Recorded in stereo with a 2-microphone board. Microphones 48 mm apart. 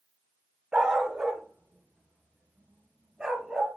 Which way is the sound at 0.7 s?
20° right (ahead or behind).